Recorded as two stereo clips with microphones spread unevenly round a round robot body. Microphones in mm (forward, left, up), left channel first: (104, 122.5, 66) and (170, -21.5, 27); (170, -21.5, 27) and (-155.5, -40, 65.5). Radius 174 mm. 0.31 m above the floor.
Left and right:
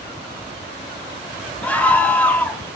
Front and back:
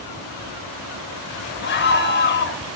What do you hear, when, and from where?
1.6 s a scream: 20° left, 1.1 m